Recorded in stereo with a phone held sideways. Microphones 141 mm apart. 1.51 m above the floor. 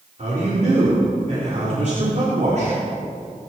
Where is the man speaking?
55° right (ahead or behind), 4 m.